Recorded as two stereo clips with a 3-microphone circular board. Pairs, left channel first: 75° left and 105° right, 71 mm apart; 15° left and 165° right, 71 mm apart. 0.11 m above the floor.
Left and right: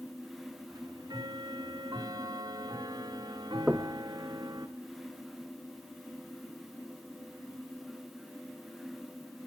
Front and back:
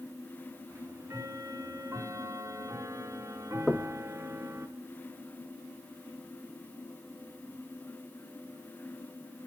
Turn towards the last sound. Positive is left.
turn(degrees=-70)